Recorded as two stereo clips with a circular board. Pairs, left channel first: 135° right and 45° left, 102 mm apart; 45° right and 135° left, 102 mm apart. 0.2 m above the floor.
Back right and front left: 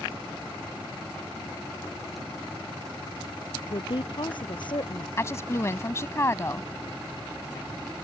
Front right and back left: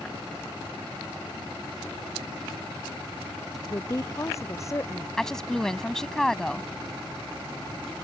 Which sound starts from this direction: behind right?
A woman speaking, at 5.2 s.